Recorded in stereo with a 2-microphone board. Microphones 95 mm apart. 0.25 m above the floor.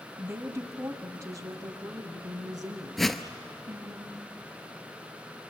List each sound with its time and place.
0.2 s a woman speaking: 25° right (ahead or behind), 1.2 m; by 4.0 s 40° right (ahead or behind), 3.5 m
3.0 s a whoosh: centre (ahead or behind), 0.7 m